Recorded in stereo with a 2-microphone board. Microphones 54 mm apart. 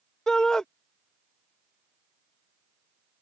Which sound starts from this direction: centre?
A shout, at 0.3 s.